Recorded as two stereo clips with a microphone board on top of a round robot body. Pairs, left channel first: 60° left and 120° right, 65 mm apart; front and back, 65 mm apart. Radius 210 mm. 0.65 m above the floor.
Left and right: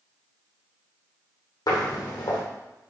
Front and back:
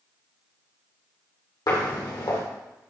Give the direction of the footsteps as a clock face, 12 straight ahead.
11 o'clock.